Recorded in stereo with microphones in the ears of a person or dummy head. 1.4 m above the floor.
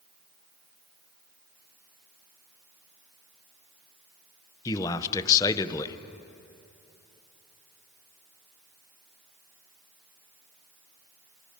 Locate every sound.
4.7 s a man speaking: 20° left (ahead or behind), 0.9 m